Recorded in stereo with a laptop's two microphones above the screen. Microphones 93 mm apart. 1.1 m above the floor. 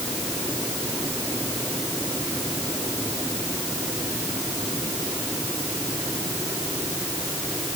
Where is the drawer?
I don't hear a drawer.